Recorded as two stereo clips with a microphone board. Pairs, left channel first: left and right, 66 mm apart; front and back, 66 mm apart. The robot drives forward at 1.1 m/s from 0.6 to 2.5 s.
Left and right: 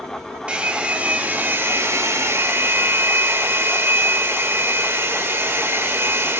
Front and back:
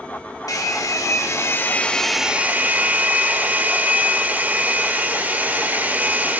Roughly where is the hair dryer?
Ahead.